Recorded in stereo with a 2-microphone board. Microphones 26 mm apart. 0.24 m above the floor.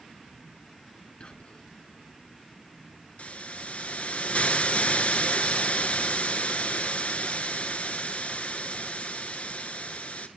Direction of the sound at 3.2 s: 65° left (ahead or behind).